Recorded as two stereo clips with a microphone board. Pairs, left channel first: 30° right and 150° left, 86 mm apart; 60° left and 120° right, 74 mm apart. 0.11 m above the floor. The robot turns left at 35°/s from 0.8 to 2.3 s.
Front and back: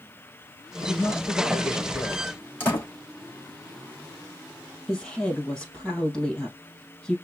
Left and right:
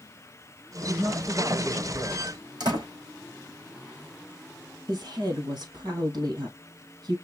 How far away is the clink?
I don't hear a clink.